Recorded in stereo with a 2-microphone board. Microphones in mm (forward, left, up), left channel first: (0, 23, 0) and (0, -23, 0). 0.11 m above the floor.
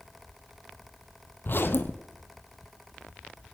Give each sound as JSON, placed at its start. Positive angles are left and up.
{"t": 1.4, "sound": "a zipper", "side_deg": 55, "distance_m": 1.0}